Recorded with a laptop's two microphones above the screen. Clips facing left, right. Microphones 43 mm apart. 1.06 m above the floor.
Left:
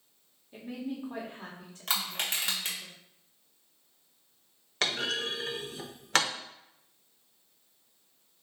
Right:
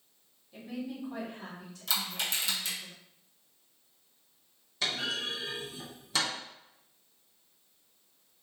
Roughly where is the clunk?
Left.